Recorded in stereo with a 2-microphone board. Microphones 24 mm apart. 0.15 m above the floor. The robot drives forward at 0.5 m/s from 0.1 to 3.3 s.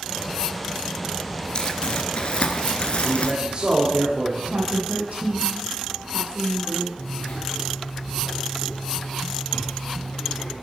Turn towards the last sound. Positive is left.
turn(degrees=65)  # may be behind; listen again after turning